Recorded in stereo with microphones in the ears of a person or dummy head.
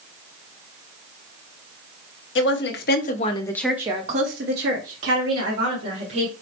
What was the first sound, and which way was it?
A woman speaking, 60° left (ahead or behind).